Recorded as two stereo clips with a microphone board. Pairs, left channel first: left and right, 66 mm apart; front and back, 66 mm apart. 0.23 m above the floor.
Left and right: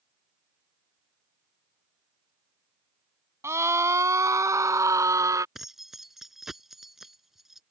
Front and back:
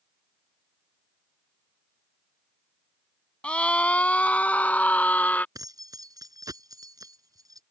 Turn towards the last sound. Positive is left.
turn(degrees=-175)